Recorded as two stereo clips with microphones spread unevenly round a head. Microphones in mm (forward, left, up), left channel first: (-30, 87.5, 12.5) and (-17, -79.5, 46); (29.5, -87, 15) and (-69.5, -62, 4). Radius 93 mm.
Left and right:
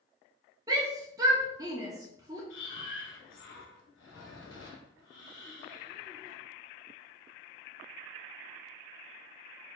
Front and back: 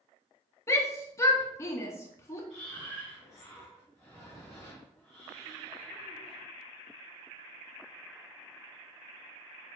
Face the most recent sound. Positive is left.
turn(degrees=80)